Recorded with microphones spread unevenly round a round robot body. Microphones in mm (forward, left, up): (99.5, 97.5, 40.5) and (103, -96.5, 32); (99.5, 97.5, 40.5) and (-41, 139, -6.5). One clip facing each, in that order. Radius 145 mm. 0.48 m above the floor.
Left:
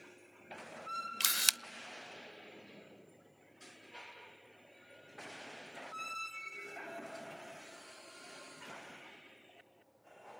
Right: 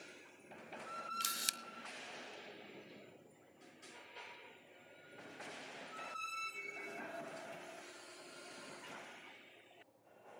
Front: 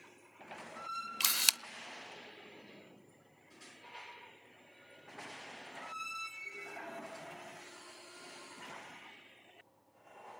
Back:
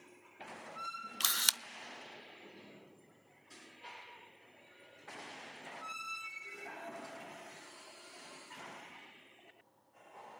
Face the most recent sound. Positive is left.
turn(degrees=65)